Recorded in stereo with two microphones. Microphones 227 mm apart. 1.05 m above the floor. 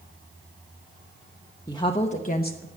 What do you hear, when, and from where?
1.7 s a woman speaking: 15° left (ahead or behind), 0.9 m; by 2.7 s 50° left (ahead or behind), 0.8 m